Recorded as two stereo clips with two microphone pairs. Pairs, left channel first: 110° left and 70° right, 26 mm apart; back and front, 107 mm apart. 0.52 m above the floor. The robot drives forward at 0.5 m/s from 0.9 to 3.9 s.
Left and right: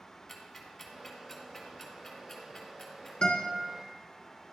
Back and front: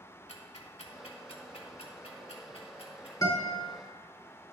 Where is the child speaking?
No child speaking in this recording.